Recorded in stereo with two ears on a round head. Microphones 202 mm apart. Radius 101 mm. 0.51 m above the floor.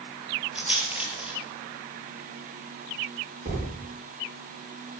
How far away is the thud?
About 9 m.